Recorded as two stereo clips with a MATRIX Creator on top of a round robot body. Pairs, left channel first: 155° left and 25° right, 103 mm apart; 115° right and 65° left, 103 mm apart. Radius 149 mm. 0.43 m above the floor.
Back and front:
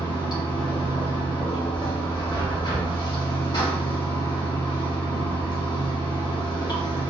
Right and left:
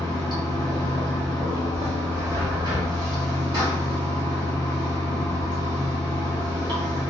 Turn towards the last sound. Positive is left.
turn(degrees=115)